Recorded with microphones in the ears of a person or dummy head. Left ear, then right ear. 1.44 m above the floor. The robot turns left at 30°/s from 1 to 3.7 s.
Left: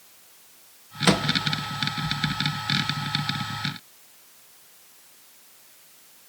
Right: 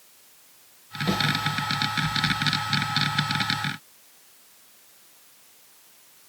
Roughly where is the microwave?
Left.